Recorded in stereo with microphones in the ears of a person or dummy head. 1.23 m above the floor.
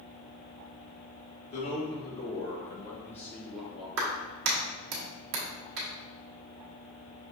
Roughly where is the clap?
Right.